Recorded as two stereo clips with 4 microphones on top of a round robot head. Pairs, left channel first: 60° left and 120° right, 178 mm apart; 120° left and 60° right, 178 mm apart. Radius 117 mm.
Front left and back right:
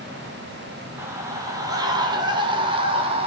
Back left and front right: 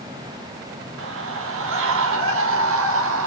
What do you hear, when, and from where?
1.0 s a scream: 45° right, 5 m; by 3.3 s 60° right, 6.5 m